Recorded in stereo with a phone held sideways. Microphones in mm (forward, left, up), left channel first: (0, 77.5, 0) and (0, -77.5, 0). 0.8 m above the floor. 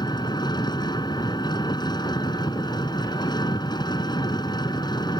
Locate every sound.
0.0 s an engine running: 25° left (ahead or behind)